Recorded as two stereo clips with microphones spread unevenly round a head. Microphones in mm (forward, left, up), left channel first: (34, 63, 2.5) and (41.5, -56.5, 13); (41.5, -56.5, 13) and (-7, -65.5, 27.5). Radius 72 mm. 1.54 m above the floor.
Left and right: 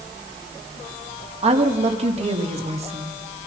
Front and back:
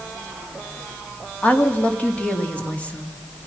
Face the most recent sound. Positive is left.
turn(degrees=-55)